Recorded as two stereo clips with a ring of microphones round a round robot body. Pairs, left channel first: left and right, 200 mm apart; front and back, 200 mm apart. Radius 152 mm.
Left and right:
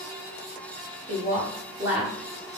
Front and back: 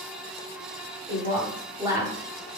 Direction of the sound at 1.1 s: 120° right.